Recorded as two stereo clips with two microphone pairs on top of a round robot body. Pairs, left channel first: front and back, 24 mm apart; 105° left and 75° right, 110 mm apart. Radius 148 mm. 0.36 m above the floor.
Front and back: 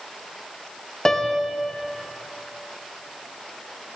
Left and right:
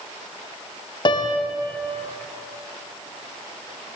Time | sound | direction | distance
1.1 | a piano | 65° left | 0.6 m